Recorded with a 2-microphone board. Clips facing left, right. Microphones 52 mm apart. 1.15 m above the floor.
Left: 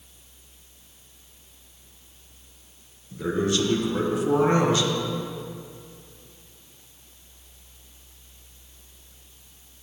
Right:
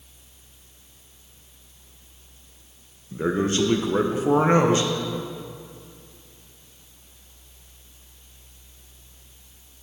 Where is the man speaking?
30° right (ahead or behind), 0.8 m.